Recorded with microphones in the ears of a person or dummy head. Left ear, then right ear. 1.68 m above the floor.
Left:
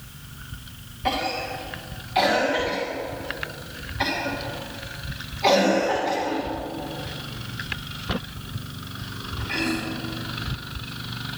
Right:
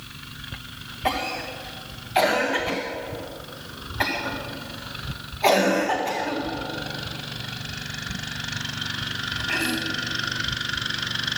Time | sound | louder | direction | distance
1.1 | a cough | left 1 dB | 30° right (ahead or behind) | 1.9 m